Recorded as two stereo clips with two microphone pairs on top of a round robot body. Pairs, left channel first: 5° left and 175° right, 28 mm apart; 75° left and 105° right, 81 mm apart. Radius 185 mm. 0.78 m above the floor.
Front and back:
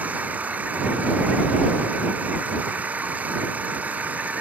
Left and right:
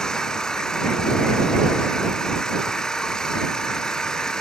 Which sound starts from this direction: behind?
An engine running, at 0.0 s.